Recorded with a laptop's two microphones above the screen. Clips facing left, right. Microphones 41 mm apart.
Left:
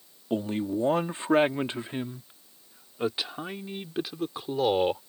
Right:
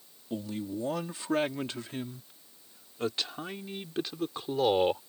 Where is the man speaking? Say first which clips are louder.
Left 7 dB; 45° left (ahead or behind); by 5.0 s centre (ahead or behind).